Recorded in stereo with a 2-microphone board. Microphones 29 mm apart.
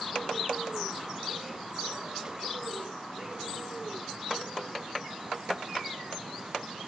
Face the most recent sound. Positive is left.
No sound to turn to.